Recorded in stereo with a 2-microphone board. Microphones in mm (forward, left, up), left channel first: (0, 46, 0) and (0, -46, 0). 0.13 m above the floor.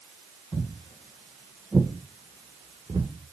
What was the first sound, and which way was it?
Footsteps, 30° left (ahead or behind).